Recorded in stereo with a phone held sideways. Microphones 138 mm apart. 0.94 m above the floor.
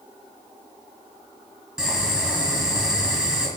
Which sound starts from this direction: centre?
Boiling, at 1.8 s.